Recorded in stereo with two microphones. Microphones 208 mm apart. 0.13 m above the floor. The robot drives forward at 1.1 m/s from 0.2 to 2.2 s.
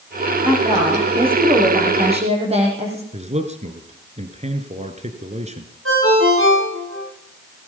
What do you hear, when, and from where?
0.4 s a woman speaking: 25° right (ahead or behind), 8.5 m; by 3.0 s 30° right (ahead or behind), 6.5 m
3.1 s a man speaking: 30° right (ahead or behind), 1.7 m
5.8 s a ringtone: 85° right, 9 m